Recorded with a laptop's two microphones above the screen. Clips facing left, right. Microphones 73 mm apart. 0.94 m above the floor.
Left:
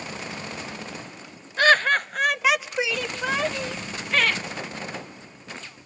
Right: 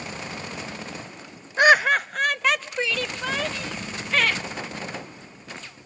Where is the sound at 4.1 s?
Centre (ahead or behind), 0.8 m.